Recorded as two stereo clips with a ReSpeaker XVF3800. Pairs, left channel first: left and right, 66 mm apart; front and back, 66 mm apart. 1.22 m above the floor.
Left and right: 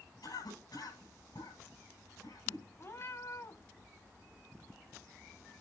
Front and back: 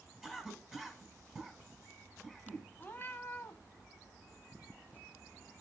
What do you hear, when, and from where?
0.2 s a cough: 95° left, 10 m
2.8 s a cat meowing: 55° left, 1.8 m